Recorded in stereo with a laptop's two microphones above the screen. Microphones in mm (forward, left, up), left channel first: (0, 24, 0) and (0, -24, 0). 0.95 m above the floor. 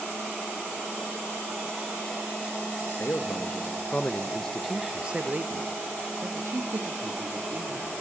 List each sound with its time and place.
2.8 s a man speaking: 55° left (ahead or behind), 1.7 m; by 7.9 s 70° right (ahead or behind), 2.5 m